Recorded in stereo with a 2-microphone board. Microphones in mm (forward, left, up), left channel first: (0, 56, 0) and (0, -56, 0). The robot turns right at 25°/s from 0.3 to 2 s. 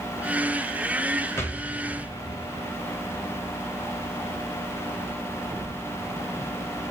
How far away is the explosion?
About 1.7 m.